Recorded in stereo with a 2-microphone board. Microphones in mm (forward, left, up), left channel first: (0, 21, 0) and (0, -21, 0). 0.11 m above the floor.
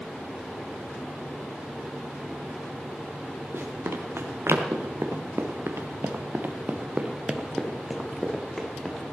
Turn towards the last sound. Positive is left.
turn(degrees=10)  # may be behind; listen again after turning